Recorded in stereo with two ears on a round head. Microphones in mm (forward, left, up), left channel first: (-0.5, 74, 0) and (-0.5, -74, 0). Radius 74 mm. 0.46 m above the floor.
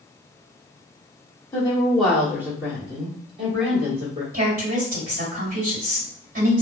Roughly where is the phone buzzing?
I don't hear a phone buzzing.